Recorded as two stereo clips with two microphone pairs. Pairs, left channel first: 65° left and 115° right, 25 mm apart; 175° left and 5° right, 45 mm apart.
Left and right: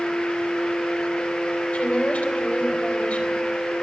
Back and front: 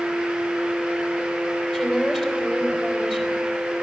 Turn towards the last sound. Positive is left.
turn(degrees=75)